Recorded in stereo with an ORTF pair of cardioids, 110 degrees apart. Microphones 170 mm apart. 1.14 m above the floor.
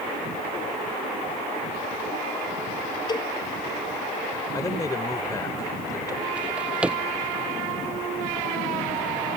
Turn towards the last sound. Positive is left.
turn(degrees=-5)